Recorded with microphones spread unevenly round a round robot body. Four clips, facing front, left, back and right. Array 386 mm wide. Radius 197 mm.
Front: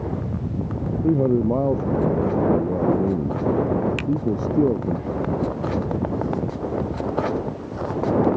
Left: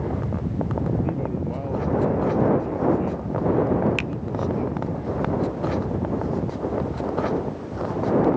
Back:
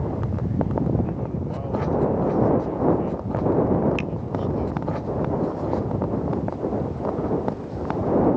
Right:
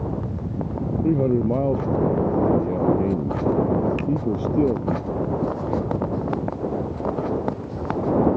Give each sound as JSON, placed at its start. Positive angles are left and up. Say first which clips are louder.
{"t": 1.0, "sound": "a man speaking", "louder": "right 7 dB, front 10 dB", "azimuth_deg": -35}
{"t": 4.0, "sound": "a finger snap", "louder": "right 4 dB, front 2 dB", "azimuth_deg": 95}